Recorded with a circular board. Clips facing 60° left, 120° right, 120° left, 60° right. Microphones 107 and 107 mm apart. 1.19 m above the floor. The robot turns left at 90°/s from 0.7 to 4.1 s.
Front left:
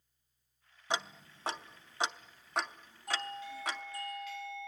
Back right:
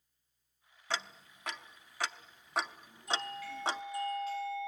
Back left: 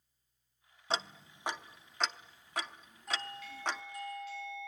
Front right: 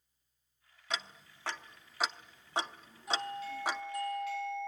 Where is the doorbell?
25° left, 3 m; by 4.7 s 65° right, 3 m.